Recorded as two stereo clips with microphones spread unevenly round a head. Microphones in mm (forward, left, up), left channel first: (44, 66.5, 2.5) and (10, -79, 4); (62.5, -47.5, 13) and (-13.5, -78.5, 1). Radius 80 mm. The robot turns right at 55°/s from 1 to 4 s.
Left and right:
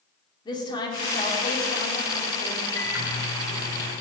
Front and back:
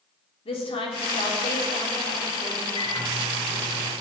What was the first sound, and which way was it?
A woman speaking, 15° left.